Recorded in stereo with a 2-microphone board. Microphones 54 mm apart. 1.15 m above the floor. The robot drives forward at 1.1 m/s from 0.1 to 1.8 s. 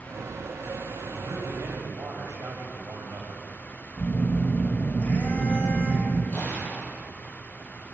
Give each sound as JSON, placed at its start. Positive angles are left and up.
{"t": 1.2, "sound": "a man speaking", "side_deg": -90, "distance_m": 5.5}
{"t": 4.0, "sound": "a phone buzzing", "side_deg": 40, "distance_m": 5.0}
{"t": 6.3, "sound": "an explosion", "side_deg": 30, "distance_m": 5.5}